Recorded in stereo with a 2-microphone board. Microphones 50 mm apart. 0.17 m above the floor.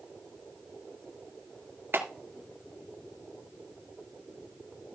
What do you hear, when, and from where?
1.9 s a clap: 50° right (ahead or behind), 2.5 m